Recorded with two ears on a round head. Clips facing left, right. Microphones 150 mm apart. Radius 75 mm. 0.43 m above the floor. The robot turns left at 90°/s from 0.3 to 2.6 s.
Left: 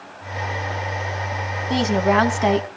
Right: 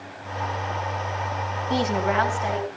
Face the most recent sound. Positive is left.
turn(degrees=80)